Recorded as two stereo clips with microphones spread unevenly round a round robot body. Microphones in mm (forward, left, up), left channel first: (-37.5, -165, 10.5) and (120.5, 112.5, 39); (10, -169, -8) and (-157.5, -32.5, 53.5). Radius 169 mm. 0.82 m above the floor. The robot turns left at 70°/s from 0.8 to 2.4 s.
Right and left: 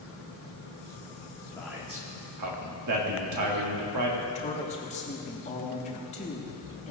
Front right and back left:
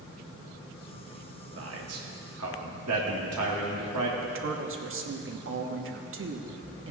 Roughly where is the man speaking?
Behind.